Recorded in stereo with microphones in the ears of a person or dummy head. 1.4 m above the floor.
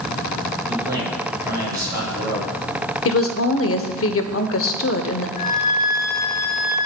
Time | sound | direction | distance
0.7 | a man speaking | 25° right (ahead or behind) | 3.5 m
3.0 | a woman speaking | 70° left (ahead or behind) | 0.8 m
5.4 | a flute | 45° left (ahead or behind) | 1.9 m